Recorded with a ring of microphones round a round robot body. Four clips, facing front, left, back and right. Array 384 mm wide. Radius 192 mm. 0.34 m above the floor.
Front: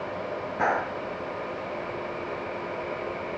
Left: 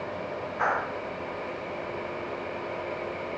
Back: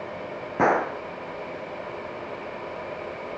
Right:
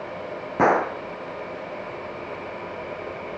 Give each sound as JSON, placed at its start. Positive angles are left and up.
{"t": 0.6, "sound": "a gunshot", "azimuth_deg": -120}